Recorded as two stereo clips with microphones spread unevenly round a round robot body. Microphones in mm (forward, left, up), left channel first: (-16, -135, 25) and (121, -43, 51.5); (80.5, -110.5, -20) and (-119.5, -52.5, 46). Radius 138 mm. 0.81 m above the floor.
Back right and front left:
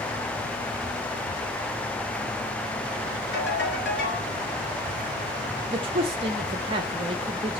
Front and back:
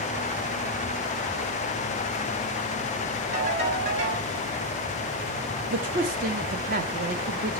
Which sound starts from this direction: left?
A man speaking, at 5.7 s.